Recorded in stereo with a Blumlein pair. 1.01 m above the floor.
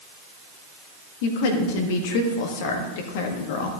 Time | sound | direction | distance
1.2 | a woman speaking | 50° left | 1.5 m